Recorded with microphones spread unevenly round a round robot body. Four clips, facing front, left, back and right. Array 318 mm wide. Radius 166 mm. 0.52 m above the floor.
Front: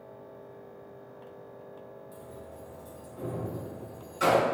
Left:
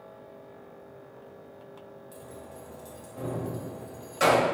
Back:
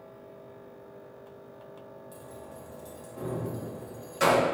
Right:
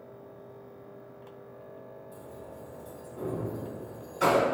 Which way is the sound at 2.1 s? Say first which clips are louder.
Left 1 dB, even; 125° left.